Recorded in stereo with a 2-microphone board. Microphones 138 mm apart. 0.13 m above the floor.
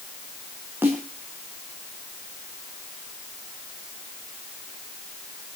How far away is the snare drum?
About 8 m.